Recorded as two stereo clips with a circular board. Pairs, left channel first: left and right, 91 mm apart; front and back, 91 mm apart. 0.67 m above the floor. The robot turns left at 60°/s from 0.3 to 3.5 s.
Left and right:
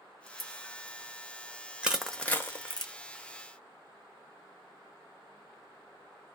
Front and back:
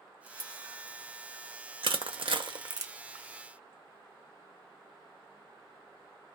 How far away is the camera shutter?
About 1.3 m.